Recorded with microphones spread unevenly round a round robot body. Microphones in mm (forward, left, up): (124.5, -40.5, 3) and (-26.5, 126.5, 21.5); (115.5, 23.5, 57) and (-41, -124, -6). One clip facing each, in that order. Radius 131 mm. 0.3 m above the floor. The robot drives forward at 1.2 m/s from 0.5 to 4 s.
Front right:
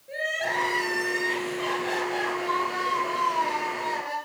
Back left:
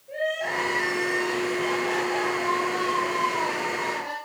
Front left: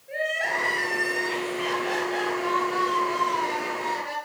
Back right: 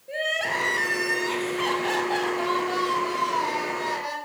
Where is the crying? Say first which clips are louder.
Back left 3 dB, even; 100° right, 4 m; by 4.1 s 140° right, 6.5 m.